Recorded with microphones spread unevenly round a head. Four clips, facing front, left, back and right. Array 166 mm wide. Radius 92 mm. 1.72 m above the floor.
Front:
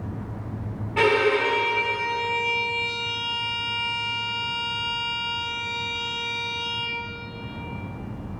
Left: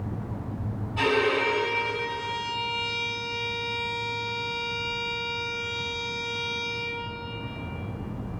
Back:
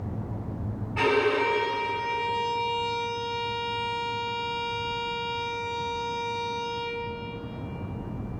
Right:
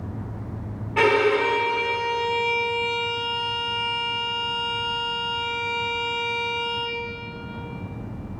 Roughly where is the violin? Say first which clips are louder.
Right 5 dB, front 3 dB; ahead right.